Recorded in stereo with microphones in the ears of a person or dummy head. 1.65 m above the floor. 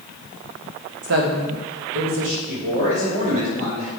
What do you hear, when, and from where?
1.0 s a woman speaking: 60° right (ahead or behind), 1.3 m; by 2.4 s 75° right (ahead or behind), 2 m
2.5 s a man speaking: 60° right (ahead or behind), 3.5 m